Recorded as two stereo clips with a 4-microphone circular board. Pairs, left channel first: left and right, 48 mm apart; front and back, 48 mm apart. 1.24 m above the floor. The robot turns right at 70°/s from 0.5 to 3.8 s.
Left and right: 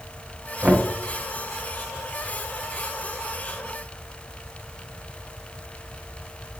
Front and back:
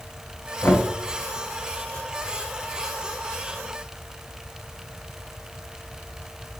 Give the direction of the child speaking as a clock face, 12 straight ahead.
I don't hear a child speaking.